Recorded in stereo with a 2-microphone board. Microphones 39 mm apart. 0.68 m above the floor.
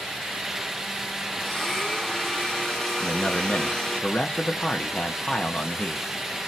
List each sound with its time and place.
1.4 s a blender: 10° left (ahead or behind), 1.6 m
3.0 s a man speaking: 25° left (ahead or behind), 0.8 m